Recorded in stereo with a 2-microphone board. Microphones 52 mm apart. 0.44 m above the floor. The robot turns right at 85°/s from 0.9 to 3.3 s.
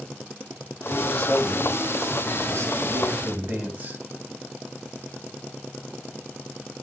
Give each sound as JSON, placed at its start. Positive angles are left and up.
{"t": 0.9, "sound": "a man speaking", "azimuth_deg": 110, "distance_m": 3.5}